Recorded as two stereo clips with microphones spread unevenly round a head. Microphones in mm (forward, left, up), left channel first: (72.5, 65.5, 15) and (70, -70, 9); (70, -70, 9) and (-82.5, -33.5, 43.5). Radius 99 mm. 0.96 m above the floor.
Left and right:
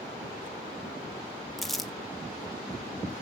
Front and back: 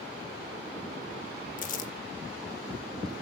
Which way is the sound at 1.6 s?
Straight ahead.